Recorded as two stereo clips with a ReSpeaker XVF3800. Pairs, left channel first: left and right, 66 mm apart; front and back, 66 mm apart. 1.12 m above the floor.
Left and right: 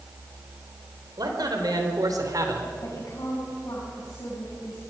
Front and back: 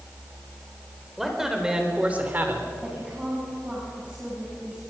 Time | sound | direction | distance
1.2 | a man speaking | 95° right | 4 m
2.8 | a woman speaking | 110° left | 7 m